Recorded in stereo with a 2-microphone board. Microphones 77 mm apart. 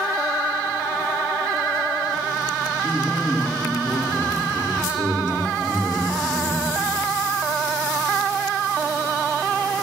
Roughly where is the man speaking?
Right.